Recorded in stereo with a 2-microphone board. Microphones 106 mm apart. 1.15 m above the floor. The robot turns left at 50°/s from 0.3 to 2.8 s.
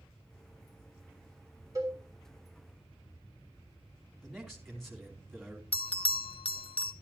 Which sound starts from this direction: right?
A cowbell, at 1.8 s.